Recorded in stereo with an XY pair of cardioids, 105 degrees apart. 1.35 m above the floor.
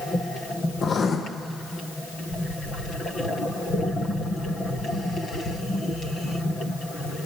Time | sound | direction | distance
0.8 | writing | 45° left | 0.9 m